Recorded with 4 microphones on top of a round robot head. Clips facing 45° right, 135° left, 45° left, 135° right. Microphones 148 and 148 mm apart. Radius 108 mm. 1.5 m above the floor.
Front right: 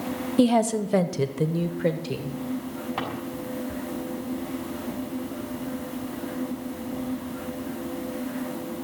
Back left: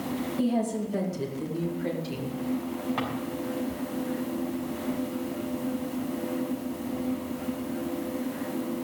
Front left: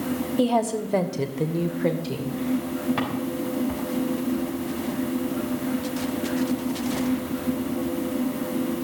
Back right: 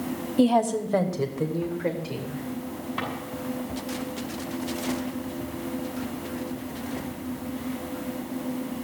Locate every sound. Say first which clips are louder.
0.4 s a woman speaking: front right 8 dB, back right 3 dB; 50° right, 1.1 m; by 2.4 s 10° right, 2 m
3.0 s a drawer: even, front left 5 dB; 40° left, 5.5 m